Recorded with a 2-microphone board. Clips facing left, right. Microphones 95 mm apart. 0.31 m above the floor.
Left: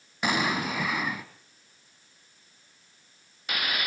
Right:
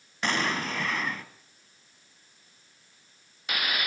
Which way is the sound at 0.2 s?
10° left (ahead or behind).